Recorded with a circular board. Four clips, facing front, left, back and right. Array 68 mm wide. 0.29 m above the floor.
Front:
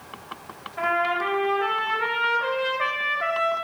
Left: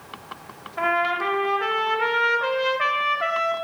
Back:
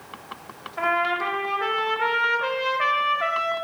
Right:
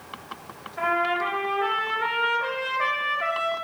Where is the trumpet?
115° left, 0.7 m.